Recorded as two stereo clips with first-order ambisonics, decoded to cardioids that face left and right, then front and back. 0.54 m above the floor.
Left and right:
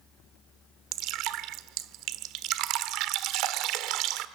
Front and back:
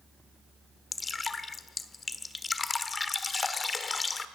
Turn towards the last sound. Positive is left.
turn(degrees=-70)